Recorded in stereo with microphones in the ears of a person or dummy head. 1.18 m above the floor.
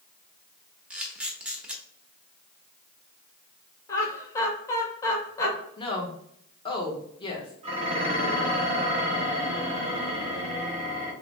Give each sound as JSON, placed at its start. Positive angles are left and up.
{"t": 0.9, "sound": "a camera shutter", "side_deg": -5, "distance_m": 0.9}
{"t": 3.9, "sound": "laughter", "side_deg": 20, "distance_m": 1.1}
{"t": 5.8, "sound": "a woman speaking", "side_deg": 25, "distance_m": 1.0}
{"t": 7.6, "sound": "dishes clattering", "side_deg": -35, "distance_m": 2.0}